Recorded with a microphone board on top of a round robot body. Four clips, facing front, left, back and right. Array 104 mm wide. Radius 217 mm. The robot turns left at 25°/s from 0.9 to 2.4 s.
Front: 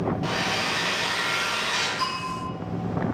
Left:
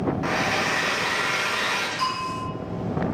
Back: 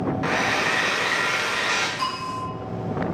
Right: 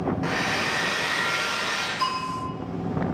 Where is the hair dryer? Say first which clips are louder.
Left 2 dB, back 4 dB; 170° left, 0.7 m; by 1.9 s 145° left, 0.7 m.